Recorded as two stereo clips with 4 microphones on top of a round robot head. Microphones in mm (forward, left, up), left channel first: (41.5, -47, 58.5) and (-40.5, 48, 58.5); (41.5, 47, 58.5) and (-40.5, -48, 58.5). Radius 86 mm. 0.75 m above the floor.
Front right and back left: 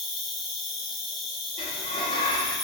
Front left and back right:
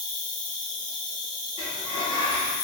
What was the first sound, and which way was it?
An insect, 40° left.